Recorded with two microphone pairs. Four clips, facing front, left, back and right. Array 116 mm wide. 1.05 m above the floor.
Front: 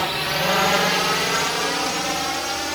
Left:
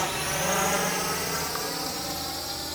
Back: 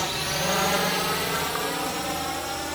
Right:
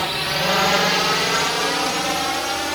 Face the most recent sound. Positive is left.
turn(degrees=-70)